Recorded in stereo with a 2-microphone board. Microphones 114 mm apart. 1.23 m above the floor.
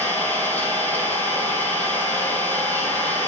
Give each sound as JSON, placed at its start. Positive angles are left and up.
{"t": 0.0, "sound": "an engine running", "side_deg": 20, "distance_m": 3.0}